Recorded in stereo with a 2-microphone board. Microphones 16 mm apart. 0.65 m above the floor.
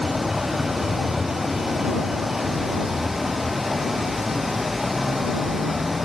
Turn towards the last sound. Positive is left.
turn(degrees=-25)  # may be behind; listen again after turning